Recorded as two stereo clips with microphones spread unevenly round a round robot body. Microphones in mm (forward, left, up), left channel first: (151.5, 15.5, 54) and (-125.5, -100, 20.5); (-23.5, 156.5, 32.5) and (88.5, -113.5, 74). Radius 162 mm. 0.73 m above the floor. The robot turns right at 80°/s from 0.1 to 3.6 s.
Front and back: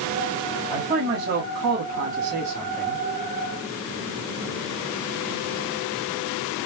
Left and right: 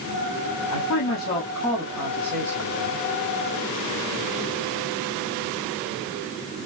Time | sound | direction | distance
0.7 | a man speaking | 125° left | 1.9 m